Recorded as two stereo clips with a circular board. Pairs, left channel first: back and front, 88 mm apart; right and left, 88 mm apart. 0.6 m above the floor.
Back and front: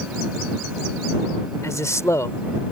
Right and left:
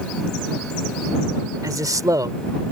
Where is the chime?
I don't hear a chime.